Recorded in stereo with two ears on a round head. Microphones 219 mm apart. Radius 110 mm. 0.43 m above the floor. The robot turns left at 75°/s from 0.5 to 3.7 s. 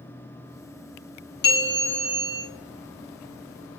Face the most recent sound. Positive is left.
turn(degrees=-125)